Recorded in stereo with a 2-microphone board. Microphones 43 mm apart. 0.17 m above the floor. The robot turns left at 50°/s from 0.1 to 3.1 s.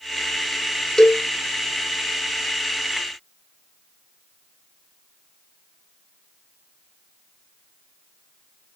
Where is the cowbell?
15° left (ahead or behind), 1.2 m; by 1.2 s 5° left (ahead or behind), 1.2 m.